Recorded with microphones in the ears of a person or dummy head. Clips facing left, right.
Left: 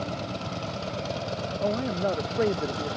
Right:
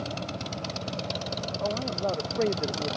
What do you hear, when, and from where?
1.6 s a man speaking: 25° left (ahead or behind); by 3.0 s 10° right (ahead or behind)